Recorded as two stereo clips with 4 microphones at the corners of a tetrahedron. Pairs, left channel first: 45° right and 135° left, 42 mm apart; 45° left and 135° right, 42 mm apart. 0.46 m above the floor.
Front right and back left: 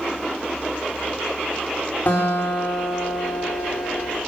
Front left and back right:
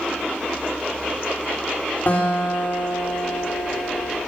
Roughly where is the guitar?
Ahead.